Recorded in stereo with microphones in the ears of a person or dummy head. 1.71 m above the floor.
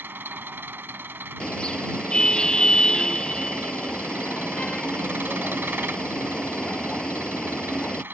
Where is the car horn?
10° left (ahead or behind).